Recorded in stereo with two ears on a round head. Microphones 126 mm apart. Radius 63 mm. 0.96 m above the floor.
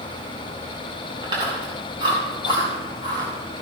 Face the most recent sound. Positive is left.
turn(degrees=-30)  # may be behind; listen again after turning